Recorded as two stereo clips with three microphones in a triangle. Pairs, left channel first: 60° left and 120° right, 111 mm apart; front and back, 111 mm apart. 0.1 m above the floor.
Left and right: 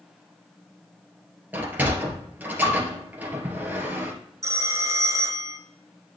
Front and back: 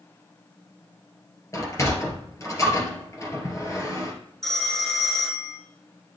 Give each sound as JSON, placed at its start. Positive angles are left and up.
{"t": 1.5, "sound": "a sliding door", "azimuth_deg": -50, "distance_m": 2.0}
{"t": 4.4, "sound": "a phone ringing", "azimuth_deg": -85, "distance_m": 1.3}